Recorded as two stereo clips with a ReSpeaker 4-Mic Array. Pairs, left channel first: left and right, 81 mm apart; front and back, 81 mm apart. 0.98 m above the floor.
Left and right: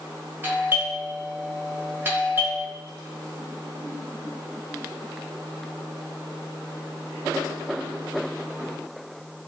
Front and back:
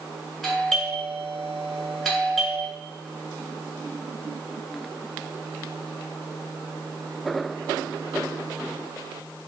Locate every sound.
0.4 s a doorbell: 90° right, 1.4 m